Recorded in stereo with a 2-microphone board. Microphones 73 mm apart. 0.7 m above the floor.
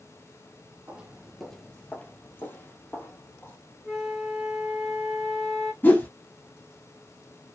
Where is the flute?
5° right (ahead or behind), 0.9 m.